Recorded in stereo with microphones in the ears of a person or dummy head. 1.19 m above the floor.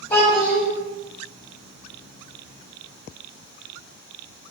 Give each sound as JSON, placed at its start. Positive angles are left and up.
{"t": 0.1, "sound": "a child speaking", "side_deg": 20, "distance_m": 1.7}